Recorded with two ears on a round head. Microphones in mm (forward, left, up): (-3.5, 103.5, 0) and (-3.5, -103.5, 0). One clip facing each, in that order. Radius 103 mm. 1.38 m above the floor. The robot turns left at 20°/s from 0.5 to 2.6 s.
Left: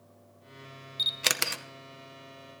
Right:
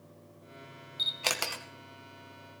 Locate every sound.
1.0 s a camera shutter: 20° left (ahead or behind), 0.8 m; by 1.6 s 30° left (ahead or behind), 0.8 m